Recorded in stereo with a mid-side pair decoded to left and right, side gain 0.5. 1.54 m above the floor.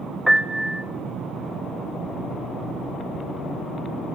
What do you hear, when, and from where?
0.3 s a piano: straight ahead, 0.8 m